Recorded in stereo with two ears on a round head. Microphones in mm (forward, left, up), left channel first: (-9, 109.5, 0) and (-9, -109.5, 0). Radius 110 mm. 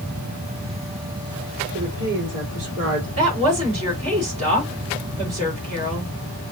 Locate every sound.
1.7 s a woman speaking: 45° right (ahead or behind), 3 m
3.2 s a woman speaking: 25° right (ahead or behind), 3 m